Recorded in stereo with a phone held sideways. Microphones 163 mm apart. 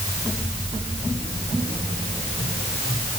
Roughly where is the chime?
No chime in this recording.